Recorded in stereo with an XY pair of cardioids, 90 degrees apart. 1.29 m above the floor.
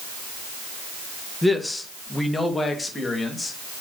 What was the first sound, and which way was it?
A man speaking, 10° left.